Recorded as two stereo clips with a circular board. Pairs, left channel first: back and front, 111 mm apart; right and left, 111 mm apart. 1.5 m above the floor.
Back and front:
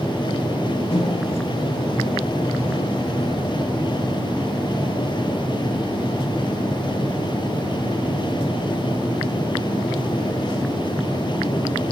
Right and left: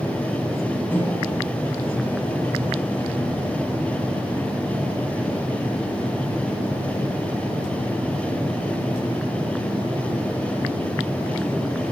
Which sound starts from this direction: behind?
A microwave, at 0.9 s.